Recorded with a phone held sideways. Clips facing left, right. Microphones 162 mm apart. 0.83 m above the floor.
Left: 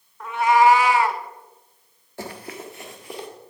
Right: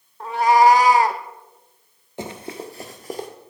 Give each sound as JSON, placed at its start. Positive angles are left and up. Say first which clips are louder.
{"t": 0.2, "sound": "a cat meowing", "louder": "right 2 dB", "side_deg": -30, "distance_m": 0.6}
{"t": 2.2, "sound": "running footsteps", "louder": "right 3 dB", "side_deg": -20, "distance_m": 0.8}